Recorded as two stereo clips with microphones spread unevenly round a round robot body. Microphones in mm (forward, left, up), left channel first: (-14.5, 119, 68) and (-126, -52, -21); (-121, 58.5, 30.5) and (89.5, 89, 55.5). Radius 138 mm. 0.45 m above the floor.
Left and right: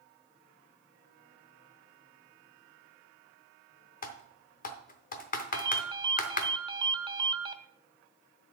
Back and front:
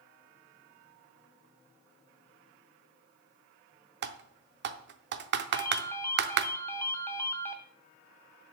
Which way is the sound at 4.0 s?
10° right.